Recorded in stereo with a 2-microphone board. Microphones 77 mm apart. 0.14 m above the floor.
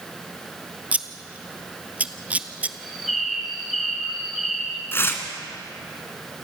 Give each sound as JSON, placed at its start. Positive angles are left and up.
{"t": 0.9, "sound": "scissors", "side_deg": -20, "distance_m": 0.8}
{"t": 2.8, "sound": "a bird", "side_deg": 0, "distance_m": 3.5}
{"t": 4.9, "sound": "tearing paper", "side_deg": 30, "distance_m": 2.0}